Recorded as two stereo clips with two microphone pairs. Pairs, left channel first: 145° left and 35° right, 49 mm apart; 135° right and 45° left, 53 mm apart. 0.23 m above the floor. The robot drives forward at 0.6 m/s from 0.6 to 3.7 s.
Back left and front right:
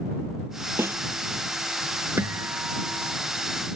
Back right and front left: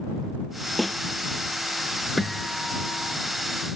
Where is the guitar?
50° right; by 3.1 s 75° right.